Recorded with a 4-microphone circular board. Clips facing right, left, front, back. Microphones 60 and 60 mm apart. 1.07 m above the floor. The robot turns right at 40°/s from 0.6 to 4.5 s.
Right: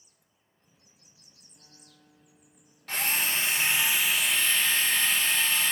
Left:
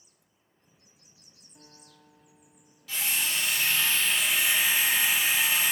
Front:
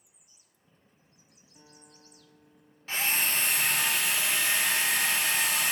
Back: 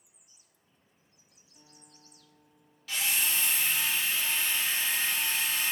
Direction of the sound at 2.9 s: 55° right.